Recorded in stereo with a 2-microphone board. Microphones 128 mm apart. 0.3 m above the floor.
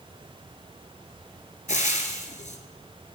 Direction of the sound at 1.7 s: 75° left (ahead or behind).